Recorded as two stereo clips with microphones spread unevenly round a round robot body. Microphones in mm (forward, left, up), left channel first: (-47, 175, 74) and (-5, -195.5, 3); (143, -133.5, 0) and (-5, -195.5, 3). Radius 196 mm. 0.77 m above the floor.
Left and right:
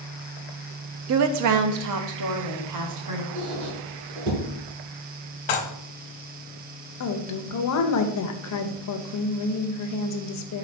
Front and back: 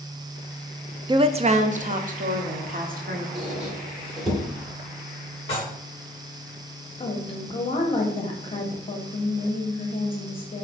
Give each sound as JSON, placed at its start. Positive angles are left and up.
{"t": 1.1, "sound": "a woman speaking", "azimuth_deg": -95, "distance_m": 0.5}
{"t": 3.4, "sound": "a squeak", "azimuth_deg": -70, "distance_m": 2.5}
{"t": 5.5, "sound": "dishes clattering", "azimuth_deg": 95, "distance_m": 0.9}
{"t": 7.0, "sound": "a woman speaking", "azimuth_deg": 60, "distance_m": 0.6}